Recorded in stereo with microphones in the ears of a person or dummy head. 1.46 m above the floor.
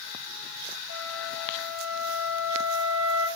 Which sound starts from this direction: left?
A flute, at 0.9 s.